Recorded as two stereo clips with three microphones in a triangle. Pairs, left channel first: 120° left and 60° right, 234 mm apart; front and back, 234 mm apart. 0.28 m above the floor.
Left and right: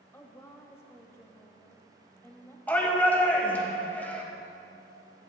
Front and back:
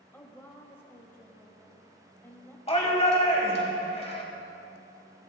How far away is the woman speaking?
About 1.1 m.